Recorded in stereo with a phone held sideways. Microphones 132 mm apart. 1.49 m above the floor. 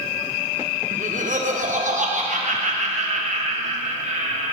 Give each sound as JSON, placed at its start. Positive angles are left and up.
{"t": 0.9, "sound": "laughter", "side_deg": -75, "distance_m": 1.0}